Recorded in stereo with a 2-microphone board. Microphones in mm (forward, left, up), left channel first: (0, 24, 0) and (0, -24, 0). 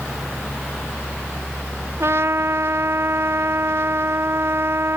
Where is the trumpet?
60° right (ahead or behind).